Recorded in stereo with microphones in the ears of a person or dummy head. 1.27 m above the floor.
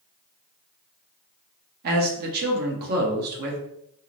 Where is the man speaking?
50° right (ahead or behind), 0.7 m.